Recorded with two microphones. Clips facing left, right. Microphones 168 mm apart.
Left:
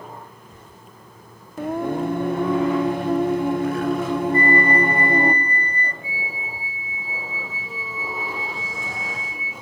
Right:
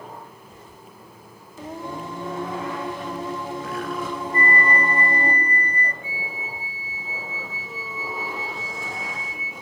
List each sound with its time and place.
1.6 s singing: 60° left (ahead or behind), 0.8 m
4.3 s a flute: 30° left (ahead or behind), 0.7 m
6.0 s a flute: 35° left (ahead or behind), 3 m